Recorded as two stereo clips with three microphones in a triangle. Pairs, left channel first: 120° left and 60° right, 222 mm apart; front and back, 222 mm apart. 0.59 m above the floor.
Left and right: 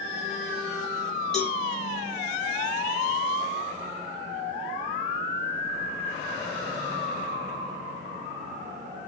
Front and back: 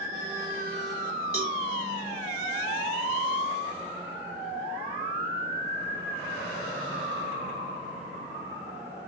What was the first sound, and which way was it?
A cowbell, 150° right.